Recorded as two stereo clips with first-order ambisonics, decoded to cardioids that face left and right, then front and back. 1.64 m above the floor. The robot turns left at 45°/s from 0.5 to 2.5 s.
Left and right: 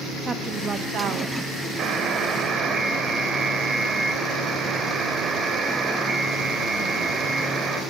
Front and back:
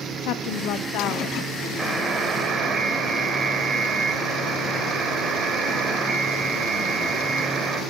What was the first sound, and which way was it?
A woman speaking, 15° right.